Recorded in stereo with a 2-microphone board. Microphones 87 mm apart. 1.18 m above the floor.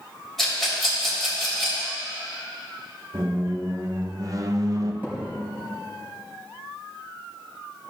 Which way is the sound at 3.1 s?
40° right (ahead or behind).